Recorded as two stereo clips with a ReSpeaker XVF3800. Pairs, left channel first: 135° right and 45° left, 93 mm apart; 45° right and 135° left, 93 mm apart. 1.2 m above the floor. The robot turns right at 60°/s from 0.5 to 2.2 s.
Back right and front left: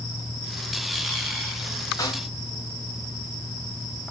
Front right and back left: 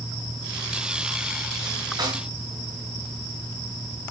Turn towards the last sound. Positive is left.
turn(degrees=-175)